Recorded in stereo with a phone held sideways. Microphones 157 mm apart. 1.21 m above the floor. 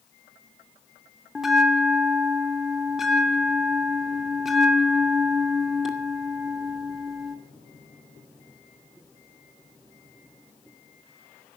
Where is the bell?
Centre (ahead or behind), 2 m.